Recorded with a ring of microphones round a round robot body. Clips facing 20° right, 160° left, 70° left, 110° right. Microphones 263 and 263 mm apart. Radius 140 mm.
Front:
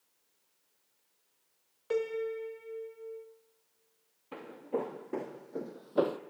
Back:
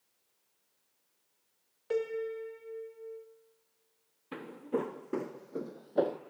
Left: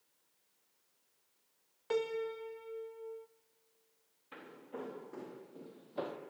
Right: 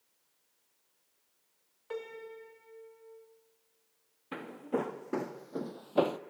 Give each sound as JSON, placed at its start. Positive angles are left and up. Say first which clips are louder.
{"t": 1.9, "sound": "a piano", "louder": "front 1 dB, left 7 dB", "azimuth_deg": 65, "distance_m": 1.3}
{"t": 4.3, "sound": "footsteps", "louder": "back 1 dB, right 13 dB", "azimuth_deg": -140, "distance_m": 2.0}